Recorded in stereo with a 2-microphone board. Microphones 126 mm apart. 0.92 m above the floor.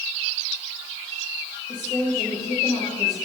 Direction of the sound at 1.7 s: 35° left (ahead or behind).